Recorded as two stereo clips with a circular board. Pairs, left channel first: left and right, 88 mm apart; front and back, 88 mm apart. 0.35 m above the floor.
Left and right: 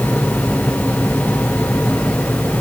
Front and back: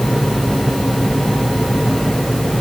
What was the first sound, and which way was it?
Only background noise.